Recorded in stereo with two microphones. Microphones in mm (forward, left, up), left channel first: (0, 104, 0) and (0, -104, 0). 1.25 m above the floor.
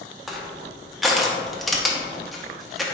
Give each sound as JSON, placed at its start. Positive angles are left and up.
{"t": 0.3, "sound": "crushing", "side_deg": 0, "distance_m": 0.7}